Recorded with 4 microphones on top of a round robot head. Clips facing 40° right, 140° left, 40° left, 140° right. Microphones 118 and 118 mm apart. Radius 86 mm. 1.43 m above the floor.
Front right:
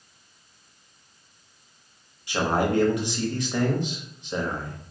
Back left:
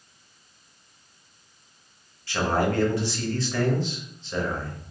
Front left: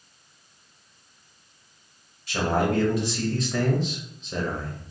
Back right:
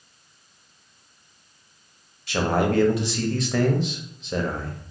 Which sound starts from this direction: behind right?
A man speaking, at 2.3 s.